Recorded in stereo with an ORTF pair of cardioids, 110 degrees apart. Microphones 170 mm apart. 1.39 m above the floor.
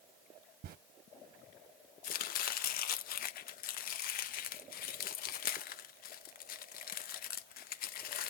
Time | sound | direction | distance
0.6 | a zipper | 60° right | 0.8 m
2.0 | chopping | 55° left | 0.6 m